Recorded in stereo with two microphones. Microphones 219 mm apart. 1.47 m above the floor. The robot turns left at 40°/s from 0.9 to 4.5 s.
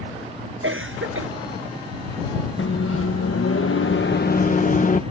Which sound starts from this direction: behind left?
A microwave, at 2.6 s.